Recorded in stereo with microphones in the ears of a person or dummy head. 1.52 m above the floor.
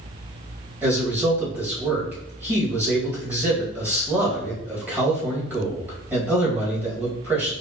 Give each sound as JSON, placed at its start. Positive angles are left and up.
{"t": 0.8, "sound": "a man speaking", "side_deg": -10, "distance_m": 2.0}